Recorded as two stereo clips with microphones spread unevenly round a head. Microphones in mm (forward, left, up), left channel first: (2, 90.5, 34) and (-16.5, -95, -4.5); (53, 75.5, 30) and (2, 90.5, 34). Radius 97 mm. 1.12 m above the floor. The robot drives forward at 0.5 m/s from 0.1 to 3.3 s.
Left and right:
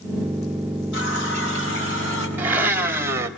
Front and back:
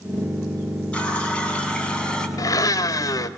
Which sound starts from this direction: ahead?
A blender, at 2.4 s.